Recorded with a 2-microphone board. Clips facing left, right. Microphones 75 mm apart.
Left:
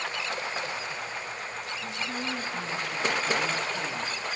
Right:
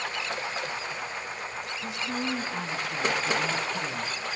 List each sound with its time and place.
1.8 s a woman speaking: 15° right (ahead or behind), 6 m; by 4.2 s 10° right (ahead or behind), 3.5 m